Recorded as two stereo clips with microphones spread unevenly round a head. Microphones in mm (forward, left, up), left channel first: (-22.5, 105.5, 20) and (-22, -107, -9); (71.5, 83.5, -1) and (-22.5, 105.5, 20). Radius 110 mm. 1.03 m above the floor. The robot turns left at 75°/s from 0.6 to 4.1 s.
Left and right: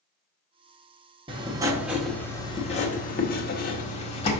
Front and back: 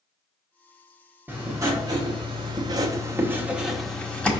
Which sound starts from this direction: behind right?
Writing, at 1.3 s.